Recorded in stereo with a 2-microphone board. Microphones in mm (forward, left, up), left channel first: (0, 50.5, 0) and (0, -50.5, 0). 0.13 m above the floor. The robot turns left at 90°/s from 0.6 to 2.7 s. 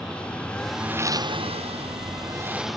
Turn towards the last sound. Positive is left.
turn(degrees=180)